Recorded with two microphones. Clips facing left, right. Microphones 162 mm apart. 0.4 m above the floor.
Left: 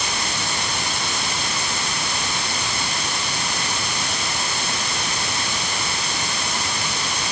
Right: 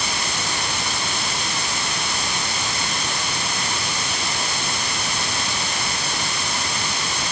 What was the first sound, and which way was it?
Only background noise.